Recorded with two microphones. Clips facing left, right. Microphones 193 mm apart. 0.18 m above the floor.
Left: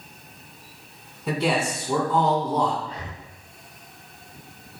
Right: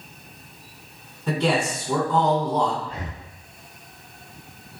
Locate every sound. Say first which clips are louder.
1.3 s a man speaking: right 1 dB; 5° left (ahead or behind), 1.4 m
2.8 s breathing: right 2 dB; 50° right (ahead or behind), 0.6 m